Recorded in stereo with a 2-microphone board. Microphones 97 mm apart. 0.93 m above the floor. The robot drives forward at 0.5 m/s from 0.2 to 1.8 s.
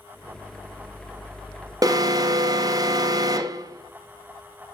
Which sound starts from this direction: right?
An alarm, at 1.8 s.